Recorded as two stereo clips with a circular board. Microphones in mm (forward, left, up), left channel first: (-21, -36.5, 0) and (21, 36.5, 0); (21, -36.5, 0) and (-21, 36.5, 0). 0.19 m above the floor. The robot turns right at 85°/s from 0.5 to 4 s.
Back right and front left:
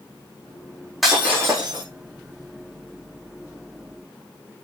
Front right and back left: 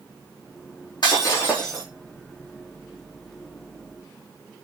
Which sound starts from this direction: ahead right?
Breaking glass, at 1.0 s.